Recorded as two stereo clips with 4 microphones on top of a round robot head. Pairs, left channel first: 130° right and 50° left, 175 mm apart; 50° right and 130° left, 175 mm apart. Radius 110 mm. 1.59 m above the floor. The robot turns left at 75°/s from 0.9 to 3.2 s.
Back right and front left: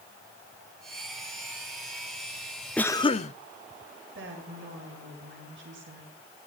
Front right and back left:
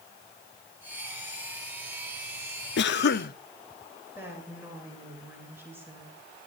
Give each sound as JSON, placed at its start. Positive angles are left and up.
{"t": 2.8, "sound": "a cough", "azimuth_deg": -45, "distance_m": 0.8}
{"t": 4.2, "sound": "a woman speaking", "azimuth_deg": 55, "distance_m": 8.5}